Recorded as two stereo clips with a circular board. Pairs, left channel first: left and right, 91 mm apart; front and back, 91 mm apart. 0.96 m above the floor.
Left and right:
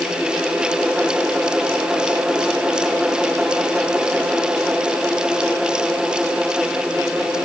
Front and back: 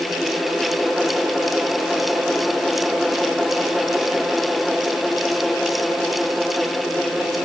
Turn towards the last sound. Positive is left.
No sound to turn to.